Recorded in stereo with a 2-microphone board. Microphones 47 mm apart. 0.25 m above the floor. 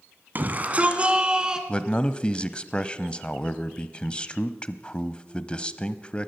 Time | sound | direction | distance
0.3 | a shout | 40° right (ahead or behind) | 2 m
1.7 | a man speaking | 20° left (ahead or behind) | 1.1 m